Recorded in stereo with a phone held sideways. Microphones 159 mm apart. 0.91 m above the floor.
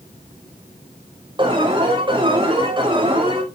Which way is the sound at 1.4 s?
30° right (ahead or behind).